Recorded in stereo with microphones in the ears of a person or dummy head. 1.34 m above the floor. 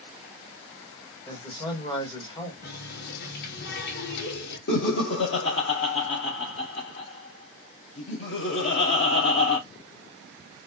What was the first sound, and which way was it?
A man speaking, 15° left (ahead or behind).